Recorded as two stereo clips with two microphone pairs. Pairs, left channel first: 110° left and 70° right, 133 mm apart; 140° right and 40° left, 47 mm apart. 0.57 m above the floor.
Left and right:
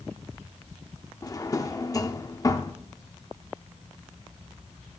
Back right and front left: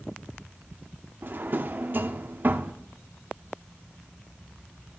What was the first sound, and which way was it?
A drawer, 55° left.